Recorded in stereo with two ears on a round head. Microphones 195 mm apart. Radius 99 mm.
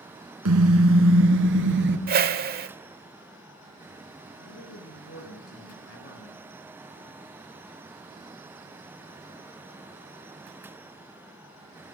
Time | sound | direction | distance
0.5 | a car horn | 85° right | 2.5 m
2.1 | a whoosh | 45° right (ahead or behind) | 1.3 m
4.4 | a man speaking | 65° left (ahead or behind) | 5 m